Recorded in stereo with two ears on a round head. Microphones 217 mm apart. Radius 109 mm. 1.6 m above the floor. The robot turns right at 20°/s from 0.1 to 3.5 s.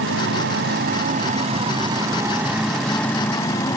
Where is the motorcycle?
55° right; by 3.8 s 15° left.